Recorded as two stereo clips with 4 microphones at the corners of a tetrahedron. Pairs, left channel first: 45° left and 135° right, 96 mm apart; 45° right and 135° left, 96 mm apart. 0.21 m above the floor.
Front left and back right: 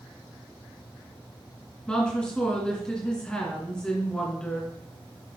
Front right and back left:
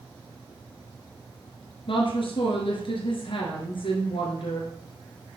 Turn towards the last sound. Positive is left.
turn(degrees=-35)